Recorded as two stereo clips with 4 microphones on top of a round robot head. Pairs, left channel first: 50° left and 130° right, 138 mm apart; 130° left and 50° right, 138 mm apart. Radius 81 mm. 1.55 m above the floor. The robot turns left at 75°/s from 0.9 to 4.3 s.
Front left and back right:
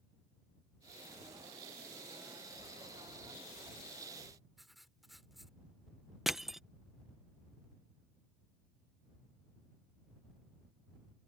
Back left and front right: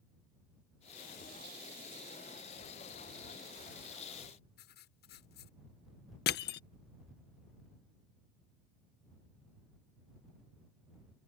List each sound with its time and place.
4.6 s writing: 140° left
6.3 s crushing: 140° left